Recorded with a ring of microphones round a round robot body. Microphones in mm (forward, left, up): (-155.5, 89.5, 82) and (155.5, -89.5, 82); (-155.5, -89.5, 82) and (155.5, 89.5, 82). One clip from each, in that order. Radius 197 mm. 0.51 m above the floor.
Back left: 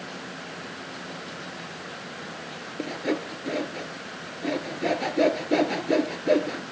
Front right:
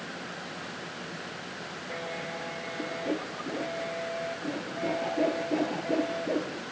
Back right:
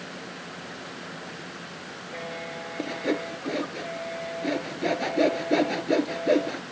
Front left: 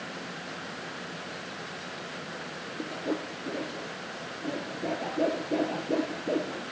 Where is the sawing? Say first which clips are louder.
Back left 5 dB, back right 5 dB; 165° right, 1.8 m.